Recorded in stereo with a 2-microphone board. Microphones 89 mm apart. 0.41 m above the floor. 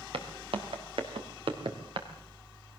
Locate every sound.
0.1 s footsteps: 80° right, 3.5 m; by 2.1 s 65° right (ahead or behind), 3.5 m